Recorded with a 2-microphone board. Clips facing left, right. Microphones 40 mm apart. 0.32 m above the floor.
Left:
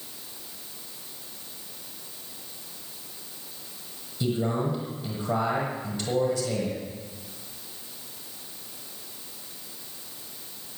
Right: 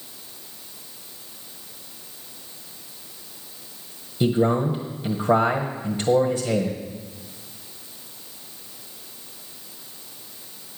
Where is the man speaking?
35° right (ahead or behind), 1.5 m.